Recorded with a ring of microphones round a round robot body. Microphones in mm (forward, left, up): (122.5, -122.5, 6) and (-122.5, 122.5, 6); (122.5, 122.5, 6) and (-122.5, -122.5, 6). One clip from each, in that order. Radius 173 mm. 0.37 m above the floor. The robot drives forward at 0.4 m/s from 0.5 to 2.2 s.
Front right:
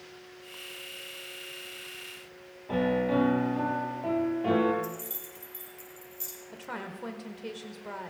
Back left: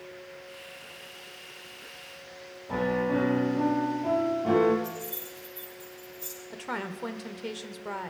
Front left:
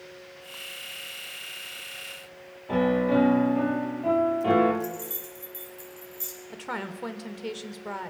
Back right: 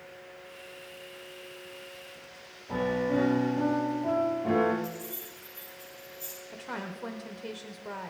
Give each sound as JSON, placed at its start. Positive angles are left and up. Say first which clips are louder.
{"t": 2.7, "sound": "a piano", "louder": "even, front left 5 dB", "azimuth_deg": 5, "distance_m": 3.0}
{"t": 4.8, "sound": "keys jangling", "louder": "back left 2 dB, front left 3 dB", "azimuth_deg": -15, "distance_m": 6.0}
{"t": 6.5, "sound": "a woman speaking", "louder": "back left 5 dB, front left 4 dB", "azimuth_deg": 80, "distance_m": 0.9}